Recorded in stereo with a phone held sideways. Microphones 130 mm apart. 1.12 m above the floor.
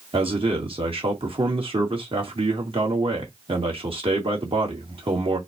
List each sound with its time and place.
0.1 s a man speaking: 45° right (ahead or behind), 1.7 m